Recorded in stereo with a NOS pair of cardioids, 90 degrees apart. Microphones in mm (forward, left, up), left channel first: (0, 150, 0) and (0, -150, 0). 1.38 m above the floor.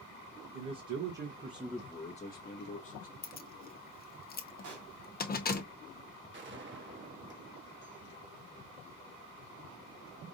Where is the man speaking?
60° right, 1.2 m; by 3.1 s 50° left, 1.5 m.